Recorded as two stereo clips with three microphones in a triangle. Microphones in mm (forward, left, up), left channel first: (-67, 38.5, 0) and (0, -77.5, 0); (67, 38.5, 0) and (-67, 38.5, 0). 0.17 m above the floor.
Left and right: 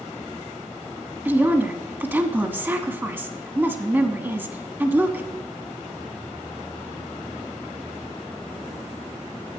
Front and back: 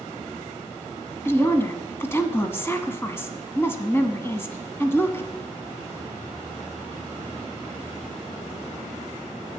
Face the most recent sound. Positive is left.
turn(degrees=-20)